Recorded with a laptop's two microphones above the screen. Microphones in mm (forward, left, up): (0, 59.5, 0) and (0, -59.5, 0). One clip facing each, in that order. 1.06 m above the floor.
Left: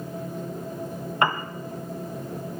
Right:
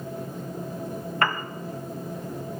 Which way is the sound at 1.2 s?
20° left (ahead or behind).